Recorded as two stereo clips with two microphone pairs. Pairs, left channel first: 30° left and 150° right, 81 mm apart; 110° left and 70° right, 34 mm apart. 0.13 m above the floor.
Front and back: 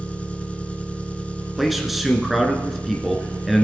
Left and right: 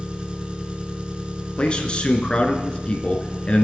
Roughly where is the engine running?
Ahead right.